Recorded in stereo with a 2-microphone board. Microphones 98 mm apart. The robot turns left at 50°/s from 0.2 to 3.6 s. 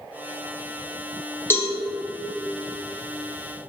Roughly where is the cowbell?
Left.